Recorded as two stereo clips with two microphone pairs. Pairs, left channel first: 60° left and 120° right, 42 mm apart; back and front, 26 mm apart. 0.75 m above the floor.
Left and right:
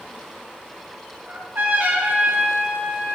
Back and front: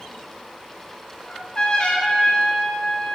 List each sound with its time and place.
1.3 s a trumpet: 135° right, 3 m